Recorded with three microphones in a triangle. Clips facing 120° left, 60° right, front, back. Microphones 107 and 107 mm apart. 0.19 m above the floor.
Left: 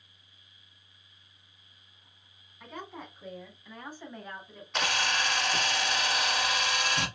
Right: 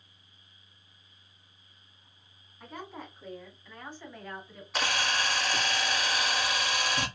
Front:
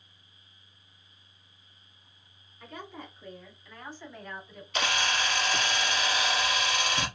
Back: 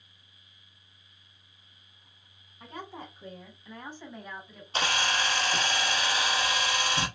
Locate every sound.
2.6 s a woman speaking: 145° right, 1.8 m; by 4.6 s 90° left, 1.3 m
4.7 s a camera shutter: 145° right, 1.2 m